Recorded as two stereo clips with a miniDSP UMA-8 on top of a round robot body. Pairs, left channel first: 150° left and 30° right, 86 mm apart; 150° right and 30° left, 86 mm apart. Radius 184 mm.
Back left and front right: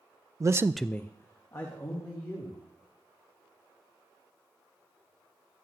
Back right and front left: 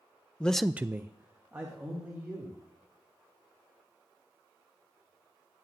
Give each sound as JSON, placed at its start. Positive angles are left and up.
{"t": 0.4, "sound": "a man speaking", "azimuth_deg": -75, "distance_m": 0.6}